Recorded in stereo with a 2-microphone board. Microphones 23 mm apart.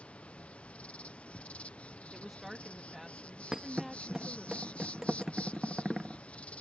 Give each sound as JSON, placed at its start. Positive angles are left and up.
{"t": 0.0, "sound": "an insect", "side_deg": 70}
{"t": 2.1, "sound": "a woman speaking", "side_deg": -10}
{"t": 3.5, "sound": "a thud", "side_deg": -20}